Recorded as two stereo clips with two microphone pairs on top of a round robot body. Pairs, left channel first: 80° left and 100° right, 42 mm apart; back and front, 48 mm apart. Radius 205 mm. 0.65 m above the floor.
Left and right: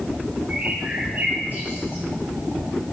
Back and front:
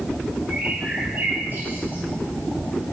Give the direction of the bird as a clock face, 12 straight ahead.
2 o'clock.